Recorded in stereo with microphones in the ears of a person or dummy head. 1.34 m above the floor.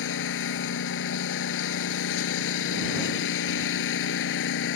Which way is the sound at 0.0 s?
80° left.